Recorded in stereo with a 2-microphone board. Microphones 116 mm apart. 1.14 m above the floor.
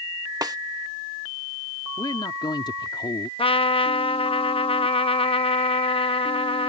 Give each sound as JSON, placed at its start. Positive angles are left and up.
{"t": 0.4, "sound": "a snare drum", "side_deg": -35}
{"t": 2.0, "sound": "a man speaking", "side_deg": 45}
{"t": 3.4, "sound": "a trumpet", "side_deg": 55}